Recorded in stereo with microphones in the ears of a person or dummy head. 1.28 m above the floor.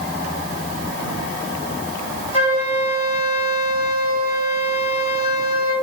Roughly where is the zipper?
I don't hear a zipper.